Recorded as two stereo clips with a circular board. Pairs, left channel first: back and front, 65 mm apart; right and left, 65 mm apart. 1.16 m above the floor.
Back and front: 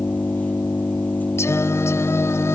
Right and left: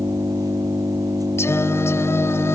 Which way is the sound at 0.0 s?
115° left.